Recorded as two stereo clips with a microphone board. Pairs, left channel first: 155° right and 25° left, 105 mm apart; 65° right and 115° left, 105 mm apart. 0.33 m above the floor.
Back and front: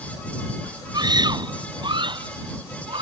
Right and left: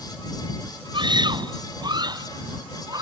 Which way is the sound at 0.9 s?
70° left.